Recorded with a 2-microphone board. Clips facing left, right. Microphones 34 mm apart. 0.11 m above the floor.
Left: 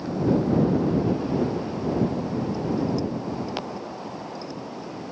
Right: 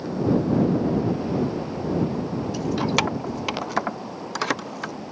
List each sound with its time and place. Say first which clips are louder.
2.5 s keys jangling: right 5 dB; 85° right